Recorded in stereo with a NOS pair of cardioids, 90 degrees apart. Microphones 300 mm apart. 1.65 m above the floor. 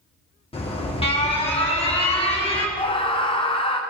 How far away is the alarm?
About 2 m.